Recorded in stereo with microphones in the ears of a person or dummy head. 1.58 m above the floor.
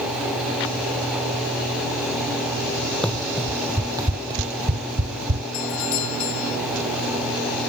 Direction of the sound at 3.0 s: 5° left (ahead or behind).